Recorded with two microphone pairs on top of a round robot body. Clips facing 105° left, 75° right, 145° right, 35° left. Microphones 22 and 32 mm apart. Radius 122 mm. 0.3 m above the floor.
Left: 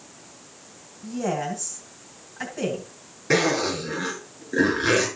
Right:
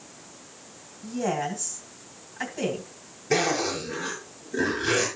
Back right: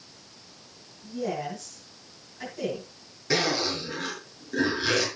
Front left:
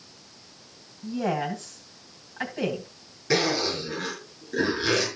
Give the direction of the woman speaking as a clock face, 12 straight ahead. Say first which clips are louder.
Left 1 dB, front left 4 dB; 12 o'clock.